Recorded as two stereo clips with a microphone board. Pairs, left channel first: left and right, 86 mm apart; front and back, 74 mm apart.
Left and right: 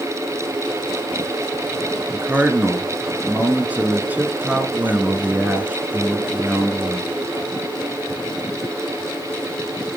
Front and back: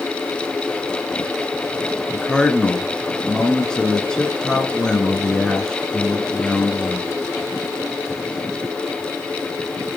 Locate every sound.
2.1 s a man speaking: 60° right, 1.1 m